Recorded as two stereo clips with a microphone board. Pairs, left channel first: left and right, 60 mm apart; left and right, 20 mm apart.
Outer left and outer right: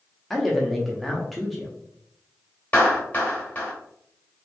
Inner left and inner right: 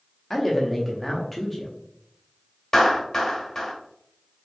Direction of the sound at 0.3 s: 5° left (ahead or behind).